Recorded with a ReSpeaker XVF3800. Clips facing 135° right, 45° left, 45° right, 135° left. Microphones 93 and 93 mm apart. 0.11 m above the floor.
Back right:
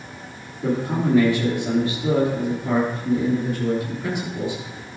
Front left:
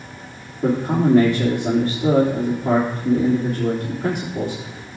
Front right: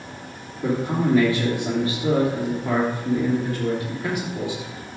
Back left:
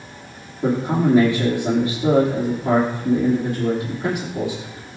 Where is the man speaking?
80° left, 3.5 m.